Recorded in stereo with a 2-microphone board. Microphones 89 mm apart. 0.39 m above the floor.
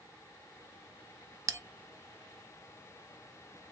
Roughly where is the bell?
Right.